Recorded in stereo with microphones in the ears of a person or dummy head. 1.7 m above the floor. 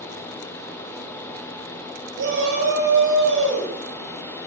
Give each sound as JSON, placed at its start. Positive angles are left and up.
{"t": 2.2, "sound": "a shout", "side_deg": -75, "distance_m": 8.5}